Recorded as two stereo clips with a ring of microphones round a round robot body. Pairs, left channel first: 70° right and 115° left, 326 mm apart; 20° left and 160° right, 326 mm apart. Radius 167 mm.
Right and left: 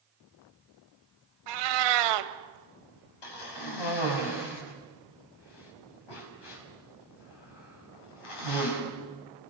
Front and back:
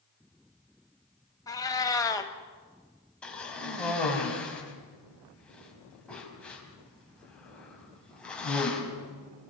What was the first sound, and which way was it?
A cat meowing, 100° left.